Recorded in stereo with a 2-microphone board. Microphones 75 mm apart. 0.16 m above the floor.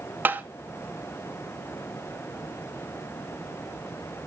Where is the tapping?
25° right (ahead or behind), 0.7 m.